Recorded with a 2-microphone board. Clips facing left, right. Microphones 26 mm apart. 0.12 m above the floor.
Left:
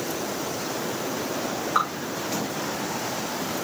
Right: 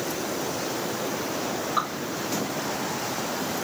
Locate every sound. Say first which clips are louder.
1.8 s dripping: left 4 dB; 65° left (ahead or behind), 6.5 m